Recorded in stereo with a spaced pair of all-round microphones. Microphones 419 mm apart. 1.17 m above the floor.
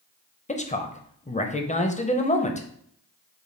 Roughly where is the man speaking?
Centre.